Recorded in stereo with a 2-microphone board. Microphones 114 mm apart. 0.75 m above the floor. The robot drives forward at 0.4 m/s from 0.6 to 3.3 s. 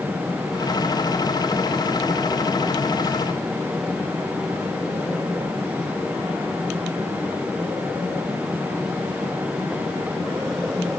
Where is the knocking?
No knocking in this recording.